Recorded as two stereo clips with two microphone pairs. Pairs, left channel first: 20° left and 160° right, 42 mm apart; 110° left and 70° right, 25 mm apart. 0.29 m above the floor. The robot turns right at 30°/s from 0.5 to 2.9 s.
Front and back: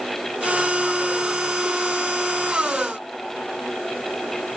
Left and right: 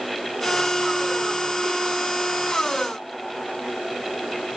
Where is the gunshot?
I don't hear a gunshot.